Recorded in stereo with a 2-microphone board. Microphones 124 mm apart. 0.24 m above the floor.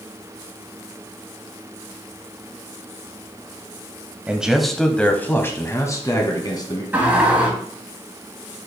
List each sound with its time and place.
4.3 s a man speaking: 10° right (ahead or behind), 0.9 m; by 6.8 s 35° left (ahead or behind), 1.8 m
6.9 s a sliding door: 15° right (ahead or behind), 3.5 m